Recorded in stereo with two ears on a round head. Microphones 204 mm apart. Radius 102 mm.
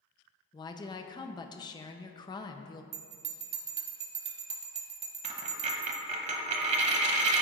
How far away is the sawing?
I don't hear sawing.